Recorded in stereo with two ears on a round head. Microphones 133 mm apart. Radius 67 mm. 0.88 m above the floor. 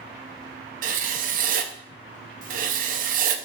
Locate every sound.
0.8 s writing: 60° right (ahead or behind), 0.6 m